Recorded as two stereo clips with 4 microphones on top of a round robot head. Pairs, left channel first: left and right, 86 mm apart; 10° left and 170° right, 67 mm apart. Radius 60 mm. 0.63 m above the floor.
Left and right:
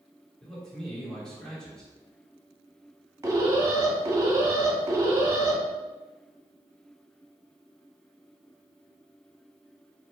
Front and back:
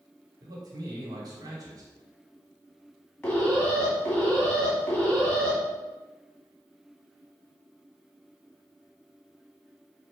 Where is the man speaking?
175° left, 1.4 m.